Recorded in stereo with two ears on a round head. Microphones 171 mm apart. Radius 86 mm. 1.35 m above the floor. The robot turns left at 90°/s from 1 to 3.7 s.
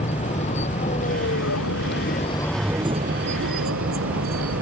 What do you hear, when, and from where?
0.0 s a vehicle: 145° left; by 4.6 s 100° right